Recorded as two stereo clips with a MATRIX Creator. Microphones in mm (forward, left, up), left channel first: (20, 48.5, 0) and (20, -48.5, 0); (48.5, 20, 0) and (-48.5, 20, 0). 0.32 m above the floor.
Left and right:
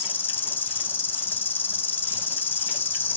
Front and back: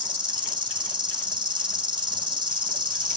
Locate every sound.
0.0 s an insect: 155° left, 2 m